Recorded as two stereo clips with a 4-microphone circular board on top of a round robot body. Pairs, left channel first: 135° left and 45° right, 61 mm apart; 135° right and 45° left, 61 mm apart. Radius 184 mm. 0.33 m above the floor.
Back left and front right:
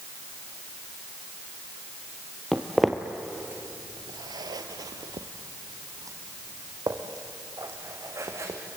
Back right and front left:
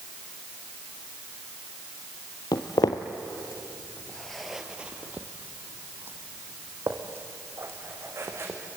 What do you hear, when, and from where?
2.5 s footsteps: 145° right, 0.9 m; by 8.6 s straight ahead, 3 m